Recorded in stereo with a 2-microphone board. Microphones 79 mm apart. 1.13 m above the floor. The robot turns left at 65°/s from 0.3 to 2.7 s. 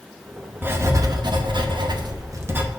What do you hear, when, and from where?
0.6 s writing: 25° right, 0.9 m; by 2.7 s 155° right, 0.9 m